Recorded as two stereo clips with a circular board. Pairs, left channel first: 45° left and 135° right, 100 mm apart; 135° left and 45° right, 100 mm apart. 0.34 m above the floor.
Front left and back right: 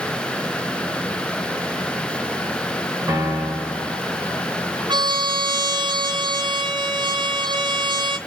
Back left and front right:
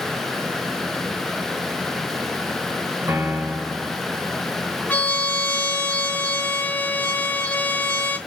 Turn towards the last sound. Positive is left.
turn(degrees=-155)